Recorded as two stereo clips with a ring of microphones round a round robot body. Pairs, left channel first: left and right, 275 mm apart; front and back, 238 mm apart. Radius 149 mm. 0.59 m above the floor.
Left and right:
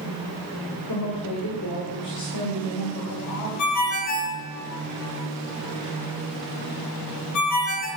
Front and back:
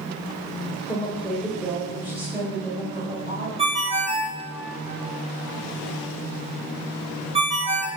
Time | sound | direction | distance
0.9 | a woman speaking | 85° left | 2 m
3.6 | a ringtone | 115° left | 1.7 m